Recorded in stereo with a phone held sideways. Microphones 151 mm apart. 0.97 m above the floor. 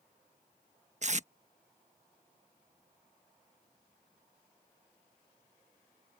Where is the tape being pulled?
50° right (ahead or behind).